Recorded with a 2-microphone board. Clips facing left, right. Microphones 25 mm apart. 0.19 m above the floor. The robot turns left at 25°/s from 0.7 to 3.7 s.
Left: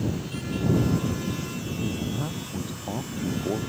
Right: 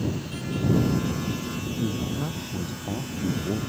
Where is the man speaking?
170° right; by 3.6 s 145° left.